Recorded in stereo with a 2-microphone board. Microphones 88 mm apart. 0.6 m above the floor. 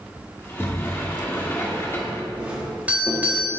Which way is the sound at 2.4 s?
15° right (ahead or behind).